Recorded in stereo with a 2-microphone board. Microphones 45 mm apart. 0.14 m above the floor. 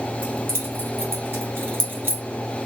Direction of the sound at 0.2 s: 55° right (ahead or behind).